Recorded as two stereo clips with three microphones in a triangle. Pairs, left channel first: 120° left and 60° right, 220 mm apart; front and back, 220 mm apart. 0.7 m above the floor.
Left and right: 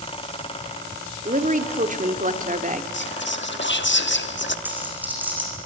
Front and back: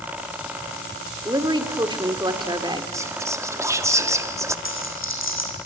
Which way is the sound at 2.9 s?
105° left.